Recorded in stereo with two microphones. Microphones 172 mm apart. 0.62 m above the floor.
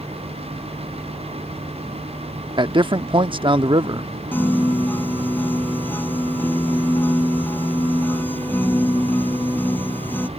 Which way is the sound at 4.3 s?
10° left (ahead or behind).